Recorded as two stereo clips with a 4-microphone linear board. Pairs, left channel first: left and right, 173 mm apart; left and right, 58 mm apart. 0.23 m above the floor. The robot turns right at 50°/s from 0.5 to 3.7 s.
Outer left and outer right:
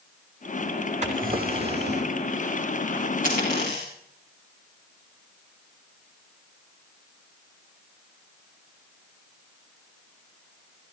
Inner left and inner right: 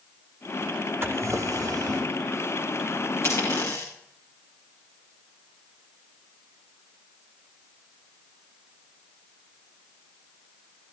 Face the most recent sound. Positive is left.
turn(degrees=75)  # may be behind; listen again after turning